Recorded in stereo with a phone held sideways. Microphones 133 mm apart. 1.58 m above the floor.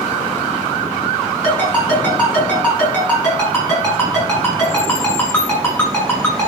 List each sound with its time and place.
1.4 s a ringtone: 10° left (ahead or behind), 6 m